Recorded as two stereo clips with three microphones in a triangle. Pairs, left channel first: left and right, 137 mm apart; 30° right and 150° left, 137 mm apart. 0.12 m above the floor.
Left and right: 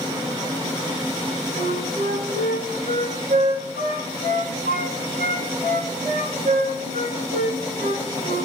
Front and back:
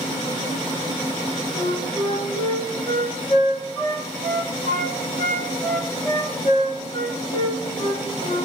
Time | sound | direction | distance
1.6 | a flute | 85° right | 6.5 m